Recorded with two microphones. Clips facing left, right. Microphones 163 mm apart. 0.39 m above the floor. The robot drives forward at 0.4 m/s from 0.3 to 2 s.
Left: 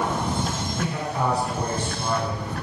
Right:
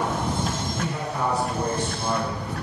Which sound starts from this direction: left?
A man speaking, at 0.8 s.